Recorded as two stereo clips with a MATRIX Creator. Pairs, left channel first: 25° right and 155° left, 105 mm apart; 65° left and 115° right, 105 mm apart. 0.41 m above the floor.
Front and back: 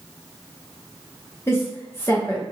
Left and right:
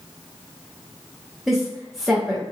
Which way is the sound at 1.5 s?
25° right.